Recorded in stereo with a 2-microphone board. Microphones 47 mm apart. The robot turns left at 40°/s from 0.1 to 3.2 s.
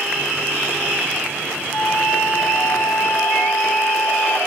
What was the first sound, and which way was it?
A flute, 130° left.